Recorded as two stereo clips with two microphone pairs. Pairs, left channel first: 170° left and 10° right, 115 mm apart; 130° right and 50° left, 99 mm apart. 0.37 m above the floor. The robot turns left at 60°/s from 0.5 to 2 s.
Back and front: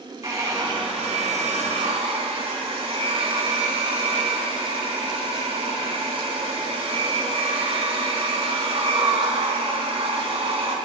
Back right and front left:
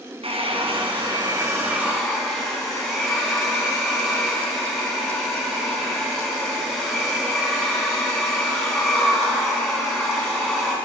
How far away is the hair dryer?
About 4 m.